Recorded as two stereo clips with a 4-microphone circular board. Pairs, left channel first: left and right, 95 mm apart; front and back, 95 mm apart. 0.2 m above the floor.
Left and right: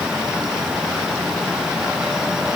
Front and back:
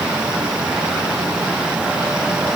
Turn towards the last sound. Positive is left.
No sound to turn to.